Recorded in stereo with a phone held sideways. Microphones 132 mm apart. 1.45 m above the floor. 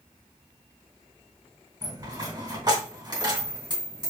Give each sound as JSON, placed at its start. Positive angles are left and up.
{"t": 1.8, "sound": "a dropped coin", "side_deg": -30, "distance_m": 3.0}